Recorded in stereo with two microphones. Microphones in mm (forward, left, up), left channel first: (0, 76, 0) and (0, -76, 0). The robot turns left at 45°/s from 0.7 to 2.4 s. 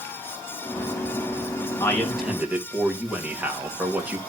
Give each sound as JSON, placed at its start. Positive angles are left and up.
{"t": 1.8, "sound": "a man speaking", "side_deg": 15, "distance_m": 2.5}